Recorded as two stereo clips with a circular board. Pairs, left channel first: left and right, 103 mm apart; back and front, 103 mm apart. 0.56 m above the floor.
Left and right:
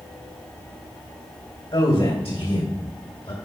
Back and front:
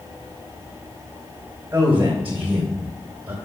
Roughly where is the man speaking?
Left.